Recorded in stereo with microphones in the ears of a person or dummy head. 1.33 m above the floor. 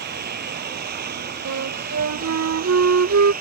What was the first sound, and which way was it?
A lawn mower, 55° right (ahead or behind).